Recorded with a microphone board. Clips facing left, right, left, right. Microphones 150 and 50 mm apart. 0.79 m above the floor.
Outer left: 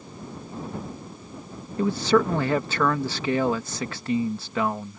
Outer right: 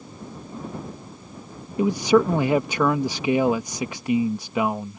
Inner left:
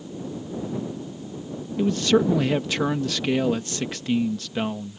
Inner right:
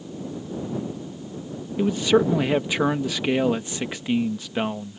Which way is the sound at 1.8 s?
15° right (ahead or behind).